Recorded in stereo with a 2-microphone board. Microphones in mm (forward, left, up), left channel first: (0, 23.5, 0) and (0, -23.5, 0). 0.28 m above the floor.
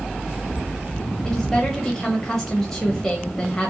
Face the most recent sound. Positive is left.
turn(degrees=15)  # may be behind; listen again after turning